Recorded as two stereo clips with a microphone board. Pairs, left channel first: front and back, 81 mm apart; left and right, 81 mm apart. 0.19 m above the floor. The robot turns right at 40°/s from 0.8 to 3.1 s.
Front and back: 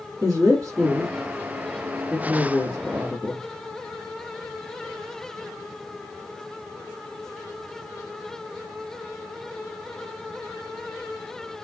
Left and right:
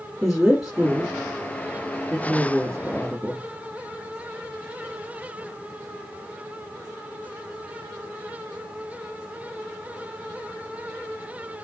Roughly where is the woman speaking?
Behind.